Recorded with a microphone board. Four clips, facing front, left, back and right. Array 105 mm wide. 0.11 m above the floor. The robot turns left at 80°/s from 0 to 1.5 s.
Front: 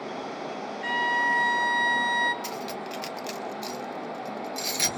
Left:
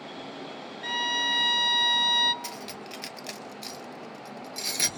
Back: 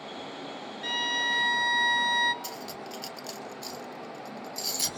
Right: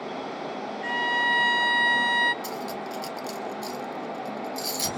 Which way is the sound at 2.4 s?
40° left.